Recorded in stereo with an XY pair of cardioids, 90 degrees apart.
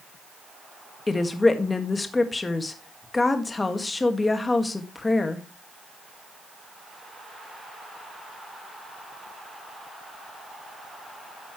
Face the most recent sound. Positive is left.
turn(degrees=25)